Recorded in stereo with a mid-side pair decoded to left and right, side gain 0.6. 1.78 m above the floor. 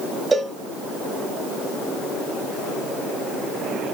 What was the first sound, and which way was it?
A cowbell, 25° right.